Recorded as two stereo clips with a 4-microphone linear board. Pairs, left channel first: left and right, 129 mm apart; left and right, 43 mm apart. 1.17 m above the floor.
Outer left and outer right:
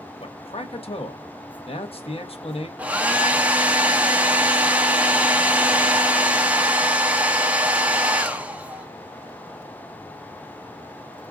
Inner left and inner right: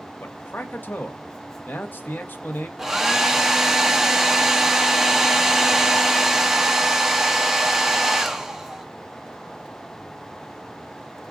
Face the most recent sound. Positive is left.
turn(degrees=-10)  # may be behind; listen again after turning